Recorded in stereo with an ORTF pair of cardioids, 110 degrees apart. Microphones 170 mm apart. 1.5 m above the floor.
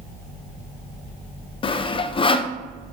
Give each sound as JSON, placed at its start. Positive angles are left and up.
{"t": 1.6, "sound": "sawing", "azimuth_deg": 30, "distance_m": 0.6}